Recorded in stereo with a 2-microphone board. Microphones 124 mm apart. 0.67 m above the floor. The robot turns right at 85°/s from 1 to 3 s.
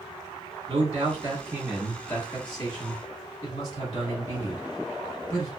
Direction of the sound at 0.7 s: 80° right.